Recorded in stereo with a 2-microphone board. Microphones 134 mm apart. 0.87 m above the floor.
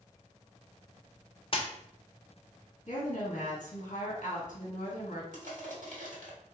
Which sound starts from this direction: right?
Crushing, at 5.3 s.